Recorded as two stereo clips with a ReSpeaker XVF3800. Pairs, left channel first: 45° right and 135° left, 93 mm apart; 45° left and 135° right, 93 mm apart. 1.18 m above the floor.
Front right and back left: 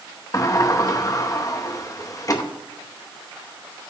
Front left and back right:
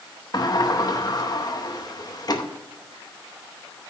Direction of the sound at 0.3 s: 5° left.